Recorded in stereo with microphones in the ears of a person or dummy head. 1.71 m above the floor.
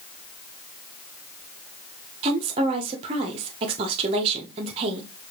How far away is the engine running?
I don't hear an engine running.